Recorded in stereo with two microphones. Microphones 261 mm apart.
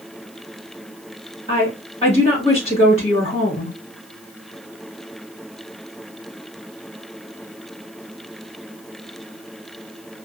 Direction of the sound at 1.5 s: 20° left (ahead or behind).